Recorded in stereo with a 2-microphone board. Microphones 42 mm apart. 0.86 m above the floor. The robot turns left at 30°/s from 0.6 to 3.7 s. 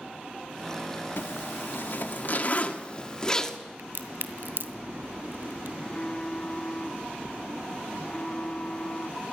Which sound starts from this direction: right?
A crack, at 3.8 s.